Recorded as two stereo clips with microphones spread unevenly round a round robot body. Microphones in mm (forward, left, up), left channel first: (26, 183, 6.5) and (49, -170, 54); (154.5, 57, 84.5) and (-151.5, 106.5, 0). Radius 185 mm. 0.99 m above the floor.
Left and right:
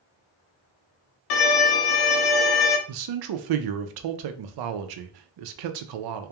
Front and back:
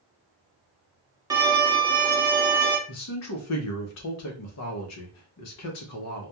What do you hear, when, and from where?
1.3 s a violin: 80° left, 0.6 m
2.9 s a man speaking: 60° right, 0.5 m